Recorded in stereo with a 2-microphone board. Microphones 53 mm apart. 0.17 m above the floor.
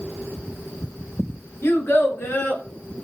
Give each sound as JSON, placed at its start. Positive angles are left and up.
{"t": 1.6, "sound": "a child speaking", "side_deg": 55, "distance_m": 1.3}